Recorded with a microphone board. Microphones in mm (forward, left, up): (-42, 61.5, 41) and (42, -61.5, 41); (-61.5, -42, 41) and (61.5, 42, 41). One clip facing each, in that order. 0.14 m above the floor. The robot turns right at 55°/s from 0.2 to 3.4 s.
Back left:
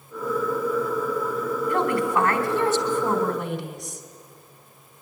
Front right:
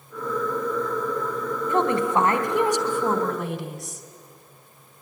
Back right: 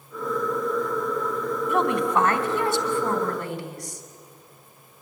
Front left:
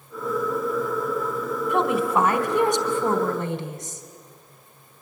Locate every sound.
1.7 s a woman speaking: 60° right, 1.5 m; by 4.0 s 30° left, 1.5 m